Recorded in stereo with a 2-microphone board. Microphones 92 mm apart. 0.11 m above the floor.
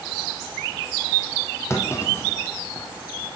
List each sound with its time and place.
1.7 s a clunk: 30° left (ahead or behind), 3 m